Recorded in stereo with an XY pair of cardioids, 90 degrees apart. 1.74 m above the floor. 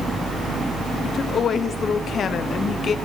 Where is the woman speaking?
60° left, 1.1 m.